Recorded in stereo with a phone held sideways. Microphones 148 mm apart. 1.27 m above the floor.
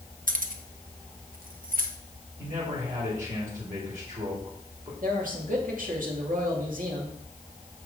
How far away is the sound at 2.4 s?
About 3 m.